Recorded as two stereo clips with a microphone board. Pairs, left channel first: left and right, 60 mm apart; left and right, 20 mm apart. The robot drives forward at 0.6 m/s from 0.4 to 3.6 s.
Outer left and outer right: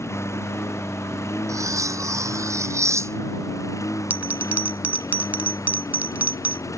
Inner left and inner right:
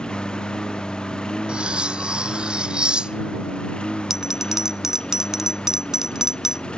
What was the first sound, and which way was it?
A lawn mower, 50° left (ahead or behind).